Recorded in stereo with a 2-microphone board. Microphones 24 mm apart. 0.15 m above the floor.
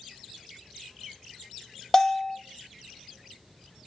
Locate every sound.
1.9 s a bell: 15° left (ahead or behind), 1.1 m